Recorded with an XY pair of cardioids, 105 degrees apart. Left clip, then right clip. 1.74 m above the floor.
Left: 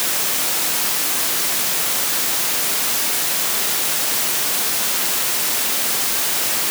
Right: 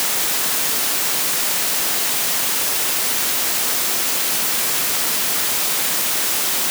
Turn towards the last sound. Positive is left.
No sound to turn to.